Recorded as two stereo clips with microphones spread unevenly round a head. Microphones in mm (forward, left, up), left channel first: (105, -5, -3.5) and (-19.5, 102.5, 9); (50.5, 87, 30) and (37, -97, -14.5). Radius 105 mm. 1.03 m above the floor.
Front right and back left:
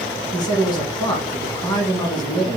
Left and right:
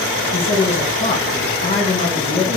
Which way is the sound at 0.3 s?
20° left.